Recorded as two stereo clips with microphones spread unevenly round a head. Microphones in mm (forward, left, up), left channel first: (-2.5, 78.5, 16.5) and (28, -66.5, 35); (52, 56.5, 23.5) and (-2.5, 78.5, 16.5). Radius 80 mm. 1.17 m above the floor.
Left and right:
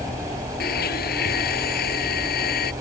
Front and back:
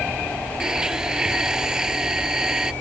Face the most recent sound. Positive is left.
turn(degrees=80)